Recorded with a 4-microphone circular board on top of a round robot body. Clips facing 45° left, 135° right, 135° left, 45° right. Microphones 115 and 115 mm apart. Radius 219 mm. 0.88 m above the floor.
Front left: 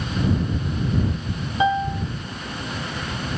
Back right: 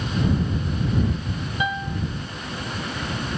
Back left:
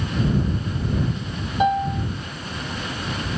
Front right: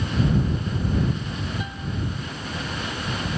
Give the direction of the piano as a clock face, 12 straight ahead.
8 o'clock.